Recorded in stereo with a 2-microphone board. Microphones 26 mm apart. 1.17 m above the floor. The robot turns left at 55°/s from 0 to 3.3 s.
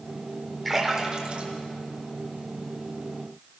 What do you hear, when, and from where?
0.7 s a splash: centre (ahead or behind), 4 m; by 2.7 s 65° right (ahead or behind), 4 m